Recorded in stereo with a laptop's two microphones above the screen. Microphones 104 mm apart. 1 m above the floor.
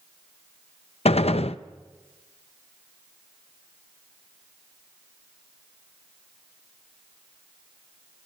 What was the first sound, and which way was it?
A gunshot, 75° left (ahead or behind).